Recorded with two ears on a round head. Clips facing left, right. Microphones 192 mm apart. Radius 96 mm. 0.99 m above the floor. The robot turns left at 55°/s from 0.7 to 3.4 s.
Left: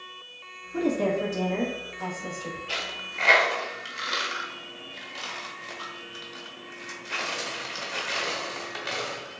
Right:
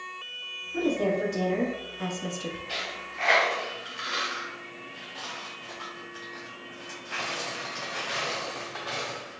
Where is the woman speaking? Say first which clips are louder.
Left 1 dB; 35° left, 1.1 m; by 2.6 s 65° right, 1.1 m.